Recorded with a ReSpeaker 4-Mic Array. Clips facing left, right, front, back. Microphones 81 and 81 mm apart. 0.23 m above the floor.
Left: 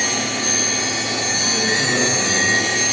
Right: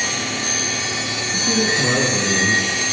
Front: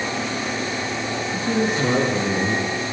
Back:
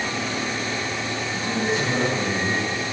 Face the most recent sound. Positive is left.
turn(degrees=-20)